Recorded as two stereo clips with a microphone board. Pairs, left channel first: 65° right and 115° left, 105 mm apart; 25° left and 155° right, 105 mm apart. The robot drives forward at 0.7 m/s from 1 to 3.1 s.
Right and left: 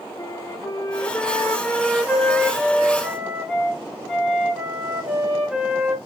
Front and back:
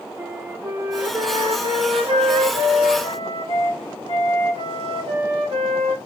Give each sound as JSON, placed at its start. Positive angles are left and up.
{"t": 0.2, "sound": "a flute", "azimuth_deg": -105, "distance_m": 0.6}